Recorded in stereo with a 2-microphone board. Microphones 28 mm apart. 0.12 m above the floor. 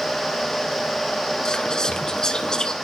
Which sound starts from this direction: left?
Whispering, at 1.4 s.